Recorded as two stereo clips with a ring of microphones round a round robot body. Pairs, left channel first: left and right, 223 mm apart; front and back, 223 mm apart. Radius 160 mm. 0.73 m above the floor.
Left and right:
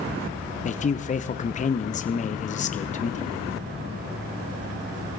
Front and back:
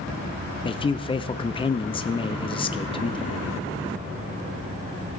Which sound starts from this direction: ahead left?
A man speaking, at 0.7 s.